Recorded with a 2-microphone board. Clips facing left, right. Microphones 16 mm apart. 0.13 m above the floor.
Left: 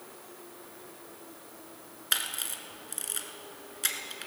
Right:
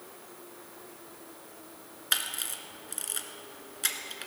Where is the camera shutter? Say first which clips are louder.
Even; 5° right (ahead or behind), 1.2 m.